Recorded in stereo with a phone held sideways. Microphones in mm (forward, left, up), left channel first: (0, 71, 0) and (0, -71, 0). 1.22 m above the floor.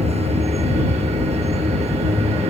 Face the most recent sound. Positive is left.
turn(degrees=-45)  # may be behind; listen again after turning